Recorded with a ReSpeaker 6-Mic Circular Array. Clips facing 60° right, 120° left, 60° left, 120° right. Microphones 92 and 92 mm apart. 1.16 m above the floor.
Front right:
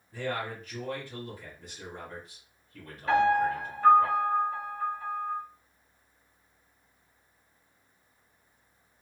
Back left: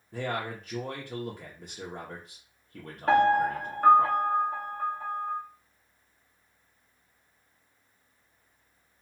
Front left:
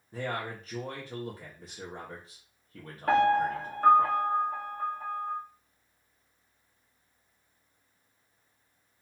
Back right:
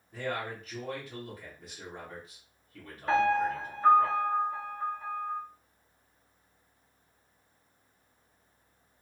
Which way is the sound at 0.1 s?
115° left.